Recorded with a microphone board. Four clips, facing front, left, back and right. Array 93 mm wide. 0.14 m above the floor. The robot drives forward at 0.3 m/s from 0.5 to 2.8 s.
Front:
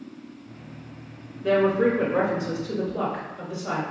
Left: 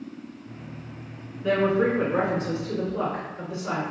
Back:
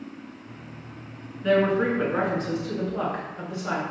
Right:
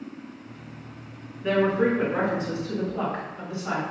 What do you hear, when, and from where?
1.4 s a woman speaking: straight behind, 1.9 m